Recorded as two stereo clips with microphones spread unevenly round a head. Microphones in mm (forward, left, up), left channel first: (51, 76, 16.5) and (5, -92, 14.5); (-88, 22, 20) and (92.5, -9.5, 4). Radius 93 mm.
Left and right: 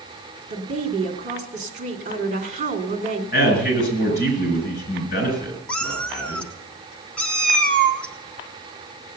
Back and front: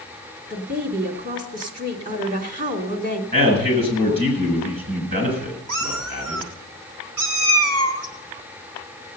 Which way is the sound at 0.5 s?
60° right.